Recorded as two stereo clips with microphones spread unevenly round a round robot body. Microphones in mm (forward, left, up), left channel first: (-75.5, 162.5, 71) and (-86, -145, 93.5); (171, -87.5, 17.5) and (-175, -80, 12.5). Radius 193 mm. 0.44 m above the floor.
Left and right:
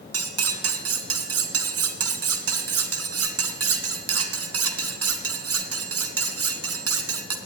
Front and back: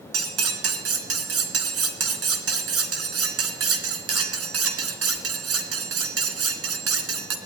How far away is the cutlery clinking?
About 3 m.